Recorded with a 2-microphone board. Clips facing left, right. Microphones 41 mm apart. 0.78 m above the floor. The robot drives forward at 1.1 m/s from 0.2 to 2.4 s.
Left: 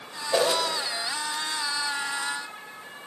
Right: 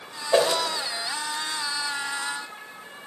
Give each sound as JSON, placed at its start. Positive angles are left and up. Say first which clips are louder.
{"t": 0.3, "sound": "a whoosh", "louder": "right 3 dB", "side_deg": -30, "distance_m": 1.5}